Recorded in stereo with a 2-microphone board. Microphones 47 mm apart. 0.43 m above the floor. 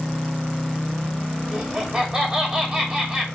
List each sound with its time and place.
1.5 s laughter: 15° right (ahead or behind), 1.9 m